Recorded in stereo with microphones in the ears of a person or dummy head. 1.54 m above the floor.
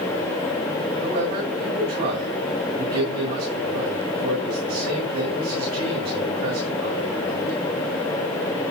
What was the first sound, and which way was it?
A man speaking, 40° right (ahead or behind).